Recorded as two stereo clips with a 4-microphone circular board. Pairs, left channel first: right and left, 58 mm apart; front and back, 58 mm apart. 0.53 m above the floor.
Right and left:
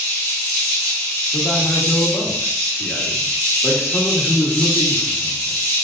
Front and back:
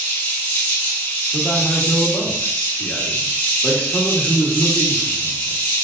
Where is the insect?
30° right, 1.1 m.